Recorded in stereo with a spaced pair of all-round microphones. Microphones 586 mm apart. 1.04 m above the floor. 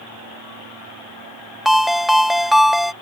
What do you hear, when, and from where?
1.6 s a ringtone: centre (ahead or behind)